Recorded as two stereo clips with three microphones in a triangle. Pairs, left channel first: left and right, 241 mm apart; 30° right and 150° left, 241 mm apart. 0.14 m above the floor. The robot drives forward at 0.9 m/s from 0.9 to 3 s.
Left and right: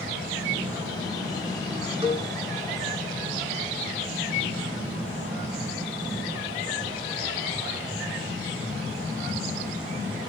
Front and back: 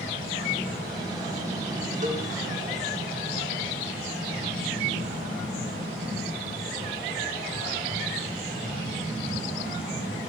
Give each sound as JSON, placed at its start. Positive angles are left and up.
{"t": 2.0, "sound": "a cowbell", "azimuth_deg": -155, "distance_m": 6.5}